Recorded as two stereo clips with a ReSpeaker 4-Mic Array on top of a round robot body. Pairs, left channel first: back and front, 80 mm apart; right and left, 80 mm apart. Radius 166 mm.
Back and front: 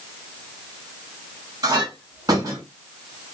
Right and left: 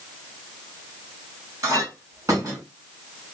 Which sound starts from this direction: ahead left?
A clink, at 1.6 s.